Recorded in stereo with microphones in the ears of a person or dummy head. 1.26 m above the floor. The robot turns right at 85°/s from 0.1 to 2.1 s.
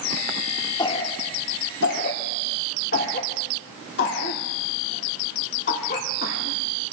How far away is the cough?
About 2.5 m.